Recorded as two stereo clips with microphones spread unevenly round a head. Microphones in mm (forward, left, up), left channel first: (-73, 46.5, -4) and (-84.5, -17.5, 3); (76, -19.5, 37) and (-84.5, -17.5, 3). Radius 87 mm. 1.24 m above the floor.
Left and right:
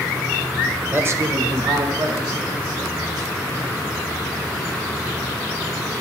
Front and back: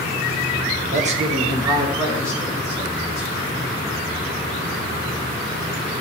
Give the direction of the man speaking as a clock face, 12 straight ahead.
5 o'clock.